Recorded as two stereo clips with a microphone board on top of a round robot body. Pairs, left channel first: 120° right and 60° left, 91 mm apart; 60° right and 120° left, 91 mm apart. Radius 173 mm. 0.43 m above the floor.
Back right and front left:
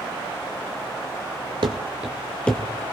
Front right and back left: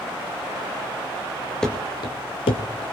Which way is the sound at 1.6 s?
25° left.